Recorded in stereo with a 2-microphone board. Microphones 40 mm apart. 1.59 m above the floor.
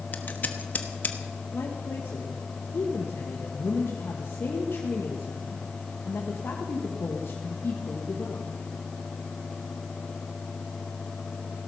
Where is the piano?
I don't hear a piano.